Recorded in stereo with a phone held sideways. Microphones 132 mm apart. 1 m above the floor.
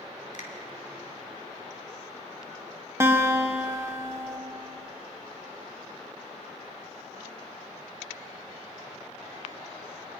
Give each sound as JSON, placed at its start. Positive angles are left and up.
{"t": 0.3, "sound": "a finger snap", "side_deg": 70, "distance_m": 3.0}
{"t": 3.0, "sound": "a guitar", "side_deg": -20, "distance_m": 1.4}